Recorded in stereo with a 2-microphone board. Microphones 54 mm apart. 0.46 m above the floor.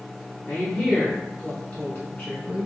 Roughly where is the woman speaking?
Centre.